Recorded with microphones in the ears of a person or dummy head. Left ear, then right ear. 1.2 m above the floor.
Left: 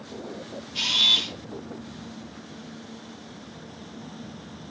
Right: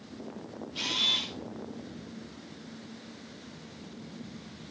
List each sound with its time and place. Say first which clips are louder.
0.8 s a camera shutter: left 8 dB; 15° left (ahead or behind), 1.4 m